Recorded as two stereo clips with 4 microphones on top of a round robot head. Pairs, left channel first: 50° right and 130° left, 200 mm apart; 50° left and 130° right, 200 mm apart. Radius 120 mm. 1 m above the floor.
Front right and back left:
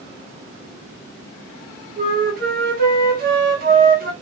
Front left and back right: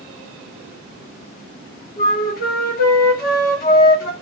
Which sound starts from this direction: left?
A flute, at 2.0 s.